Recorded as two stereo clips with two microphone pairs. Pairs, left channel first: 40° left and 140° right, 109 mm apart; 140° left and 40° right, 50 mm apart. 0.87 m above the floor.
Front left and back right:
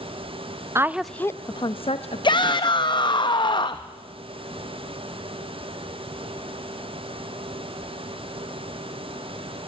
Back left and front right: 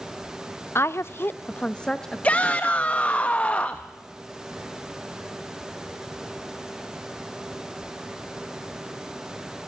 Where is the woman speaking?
160° left, 0.6 m; by 3.1 s 45° left, 1.8 m.